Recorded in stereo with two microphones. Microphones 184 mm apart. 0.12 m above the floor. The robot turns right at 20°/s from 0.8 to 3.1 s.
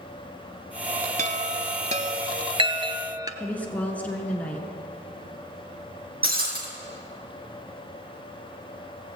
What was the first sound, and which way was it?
A chime, 45° right (ahead or behind).